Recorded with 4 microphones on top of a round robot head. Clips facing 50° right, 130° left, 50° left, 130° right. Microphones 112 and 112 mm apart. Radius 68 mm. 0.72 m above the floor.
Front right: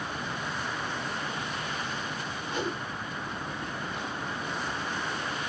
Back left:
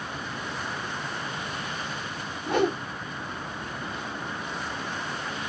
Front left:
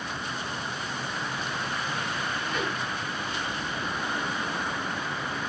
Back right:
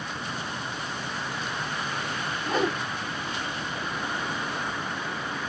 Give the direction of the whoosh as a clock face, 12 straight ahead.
6 o'clock.